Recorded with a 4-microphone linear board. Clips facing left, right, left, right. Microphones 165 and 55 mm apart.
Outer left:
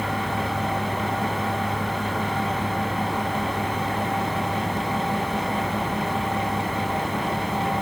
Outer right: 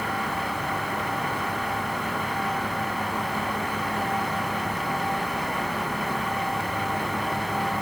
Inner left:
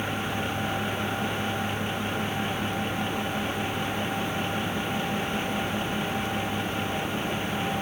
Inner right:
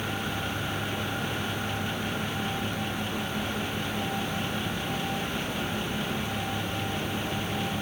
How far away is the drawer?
No drawer in this recording.